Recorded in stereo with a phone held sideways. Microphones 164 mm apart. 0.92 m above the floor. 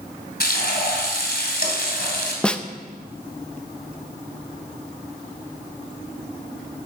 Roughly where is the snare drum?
Centre.